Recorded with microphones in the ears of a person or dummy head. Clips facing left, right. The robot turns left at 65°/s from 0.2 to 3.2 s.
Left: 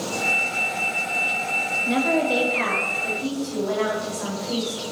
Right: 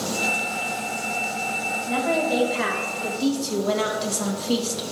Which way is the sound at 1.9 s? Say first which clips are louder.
Left 2 dB; 40° left.